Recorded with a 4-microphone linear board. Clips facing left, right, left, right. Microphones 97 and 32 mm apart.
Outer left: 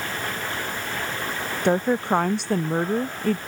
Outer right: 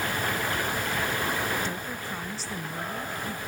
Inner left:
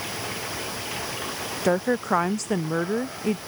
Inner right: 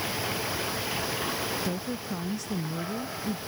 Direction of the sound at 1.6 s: 65° left (ahead or behind).